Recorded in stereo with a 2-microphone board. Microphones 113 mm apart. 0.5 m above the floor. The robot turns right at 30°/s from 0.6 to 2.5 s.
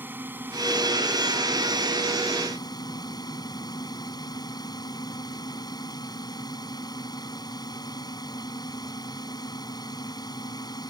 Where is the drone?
20° right; by 10.9 s 35° left.